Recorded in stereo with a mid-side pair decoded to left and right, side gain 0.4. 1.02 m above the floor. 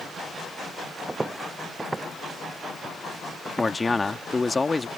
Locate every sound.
1.1 s footsteps: 20° right; by 3.7 s 15° right
3.6 s a man speaking: 25° left